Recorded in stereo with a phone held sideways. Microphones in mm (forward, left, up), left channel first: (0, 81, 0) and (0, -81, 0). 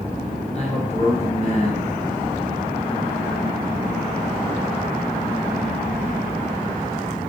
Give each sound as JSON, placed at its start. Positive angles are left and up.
{"t": 0.5, "sound": "a man speaking", "side_deg": 45, "distance_m": 1.3}